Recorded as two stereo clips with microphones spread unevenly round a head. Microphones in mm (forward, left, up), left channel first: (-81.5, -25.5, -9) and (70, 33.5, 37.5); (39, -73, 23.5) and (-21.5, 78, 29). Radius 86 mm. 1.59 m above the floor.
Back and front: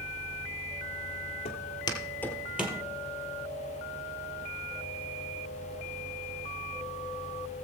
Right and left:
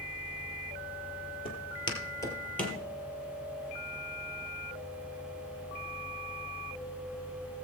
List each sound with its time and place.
1.4 s footsteps: 110° right, 1.9 m; by 2.8 s 20° left, 1.7 m